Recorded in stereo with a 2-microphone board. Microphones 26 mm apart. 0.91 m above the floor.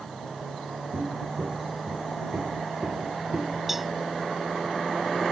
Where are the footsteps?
45° right (ahead or behind); by 3.6 s 40° right (ahead or behind).